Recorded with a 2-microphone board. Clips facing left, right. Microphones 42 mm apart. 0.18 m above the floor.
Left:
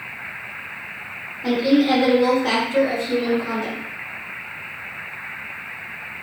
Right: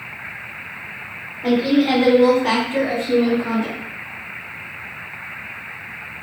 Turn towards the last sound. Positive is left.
turn(degrees=-25)  # may be behind; listen again after turning